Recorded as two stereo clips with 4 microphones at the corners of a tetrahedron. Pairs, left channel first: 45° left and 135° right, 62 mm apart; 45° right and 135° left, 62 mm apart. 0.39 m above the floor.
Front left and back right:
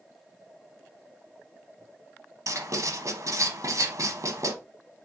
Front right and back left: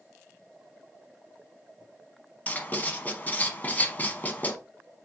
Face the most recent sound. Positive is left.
turn(degrees=-110)